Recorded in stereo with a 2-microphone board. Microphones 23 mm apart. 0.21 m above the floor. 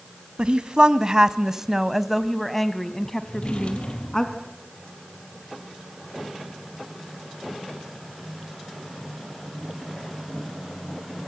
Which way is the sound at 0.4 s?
45° right (ahead or behind).